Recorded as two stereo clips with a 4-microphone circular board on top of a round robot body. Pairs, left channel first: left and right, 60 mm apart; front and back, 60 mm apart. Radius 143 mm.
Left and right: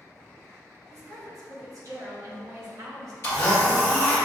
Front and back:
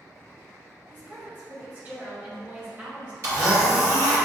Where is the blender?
145° left, 0.6 m.